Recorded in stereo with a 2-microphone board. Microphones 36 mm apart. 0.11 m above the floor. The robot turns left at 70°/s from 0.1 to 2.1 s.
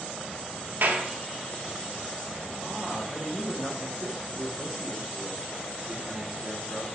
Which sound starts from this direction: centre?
A man speaking, at 2.6 s.